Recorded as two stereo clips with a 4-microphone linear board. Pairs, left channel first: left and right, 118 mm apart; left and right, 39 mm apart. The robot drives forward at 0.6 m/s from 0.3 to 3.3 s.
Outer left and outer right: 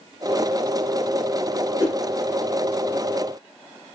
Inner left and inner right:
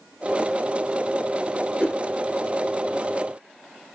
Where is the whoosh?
30° left (ahead or behind), 2.5 m; by 2.0 s 35° left (ahead or behind), 2.5 m.